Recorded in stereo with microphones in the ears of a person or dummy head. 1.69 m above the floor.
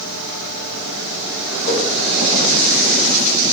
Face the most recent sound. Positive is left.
turn(degrees=40)  # may be behind; listen again after turning